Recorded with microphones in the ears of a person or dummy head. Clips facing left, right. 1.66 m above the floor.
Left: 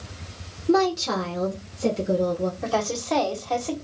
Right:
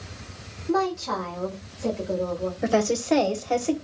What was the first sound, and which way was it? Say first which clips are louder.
A woman speaking: left 4 dB; 55° left (ahead or behind).